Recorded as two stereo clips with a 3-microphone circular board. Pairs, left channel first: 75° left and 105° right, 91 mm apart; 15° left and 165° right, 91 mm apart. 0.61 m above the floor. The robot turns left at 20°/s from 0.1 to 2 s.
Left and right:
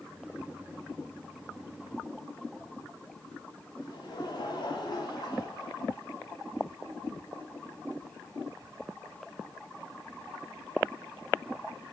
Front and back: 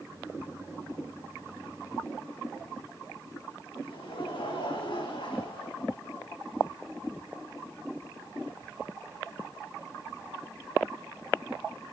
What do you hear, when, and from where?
3.8 s laughter: 35° left, 4 m